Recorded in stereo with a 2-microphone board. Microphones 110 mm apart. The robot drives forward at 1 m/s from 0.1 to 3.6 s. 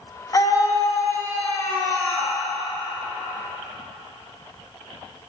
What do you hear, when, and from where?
0.3 s a scream: 35° left (ahead or behind), 1.2 m; by 2.4 s 15° left (ahead or behind), 2.5 m